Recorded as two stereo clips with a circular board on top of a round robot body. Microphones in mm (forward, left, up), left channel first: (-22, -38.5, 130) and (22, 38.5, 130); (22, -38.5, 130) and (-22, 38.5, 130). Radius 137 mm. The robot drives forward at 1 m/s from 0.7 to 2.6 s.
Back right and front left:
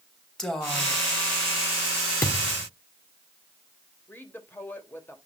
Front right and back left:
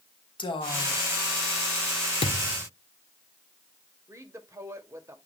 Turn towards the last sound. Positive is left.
turn(degrees=175)